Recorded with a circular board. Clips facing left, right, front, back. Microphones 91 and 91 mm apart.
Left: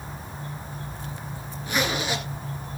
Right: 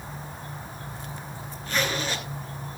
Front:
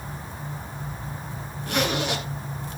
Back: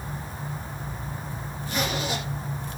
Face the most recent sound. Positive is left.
turn(degrees=10)